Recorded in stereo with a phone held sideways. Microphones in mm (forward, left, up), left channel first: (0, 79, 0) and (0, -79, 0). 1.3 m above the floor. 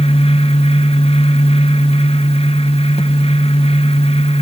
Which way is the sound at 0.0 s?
40° left (ahead or behind).